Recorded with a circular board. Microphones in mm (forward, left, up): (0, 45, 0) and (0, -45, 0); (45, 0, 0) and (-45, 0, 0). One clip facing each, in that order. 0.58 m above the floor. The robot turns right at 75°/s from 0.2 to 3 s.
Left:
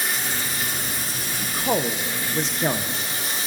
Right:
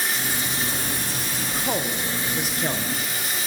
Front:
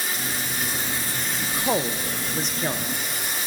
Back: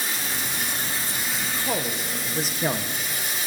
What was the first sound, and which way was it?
Running water, straight behind.